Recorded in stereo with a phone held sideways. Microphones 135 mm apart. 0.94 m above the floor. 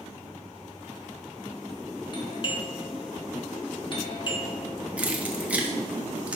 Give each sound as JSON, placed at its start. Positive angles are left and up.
{"t": 2.1, "sound": "a doorbell", "side_deg": 40, "distance_m": 1.2}
{"t": 5.0, "sound": "keys jangling", "side_deg": -10, "distance_m": 0.9}